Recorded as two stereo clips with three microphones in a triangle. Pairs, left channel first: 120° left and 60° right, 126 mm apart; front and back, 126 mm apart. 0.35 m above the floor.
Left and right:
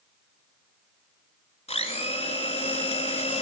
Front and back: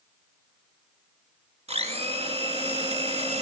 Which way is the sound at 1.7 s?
150° left.